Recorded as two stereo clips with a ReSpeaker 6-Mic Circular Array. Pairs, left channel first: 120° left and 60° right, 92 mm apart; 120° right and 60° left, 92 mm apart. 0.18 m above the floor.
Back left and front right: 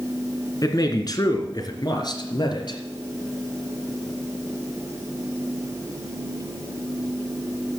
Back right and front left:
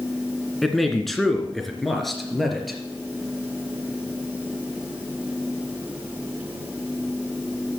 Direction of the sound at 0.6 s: 155° left.